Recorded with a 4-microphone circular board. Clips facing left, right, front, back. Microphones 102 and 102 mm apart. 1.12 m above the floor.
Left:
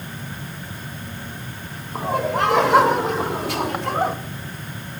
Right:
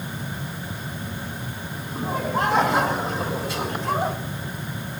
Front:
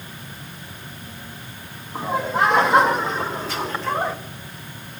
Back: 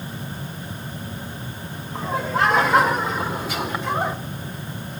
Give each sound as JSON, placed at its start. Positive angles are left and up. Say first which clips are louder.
{"t": 1.9, "sound": "laughter", "louder": "left 4 dB, front 1 dB", "azimuth_deg": 85, "distance_m": 4.5}